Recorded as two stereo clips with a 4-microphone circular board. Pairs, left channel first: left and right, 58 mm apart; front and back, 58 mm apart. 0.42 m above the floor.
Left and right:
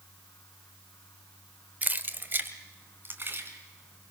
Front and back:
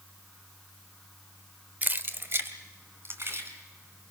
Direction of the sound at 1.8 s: 135° right.